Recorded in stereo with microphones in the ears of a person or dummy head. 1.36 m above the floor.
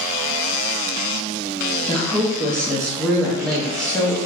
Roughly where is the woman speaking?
Centre.